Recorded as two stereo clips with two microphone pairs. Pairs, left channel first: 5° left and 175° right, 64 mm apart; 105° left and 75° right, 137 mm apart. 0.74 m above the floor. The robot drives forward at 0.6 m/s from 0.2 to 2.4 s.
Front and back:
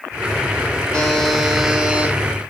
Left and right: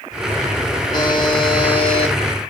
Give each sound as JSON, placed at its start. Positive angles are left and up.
{"t": 0.9, "sound": "a buzzer", "azimuth_deg": 75, "distance_m": 1.2}